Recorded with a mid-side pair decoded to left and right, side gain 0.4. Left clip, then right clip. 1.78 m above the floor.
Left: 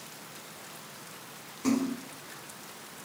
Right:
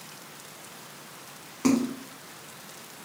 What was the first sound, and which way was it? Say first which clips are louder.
A splash: right 4 dB; 60° right.